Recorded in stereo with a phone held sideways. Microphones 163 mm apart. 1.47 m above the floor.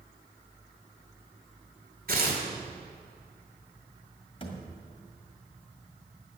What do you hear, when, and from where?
2.1 s tearing paper: 60° right (ahead or behind), 2.5 m
4.4 s a thud: 35° left (ahead or behind), 1.8 m